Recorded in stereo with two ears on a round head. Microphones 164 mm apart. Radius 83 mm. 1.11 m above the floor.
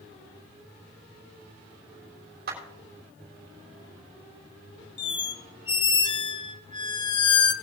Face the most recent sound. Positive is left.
turn(degrees=25)  # may be behind; listen again after turning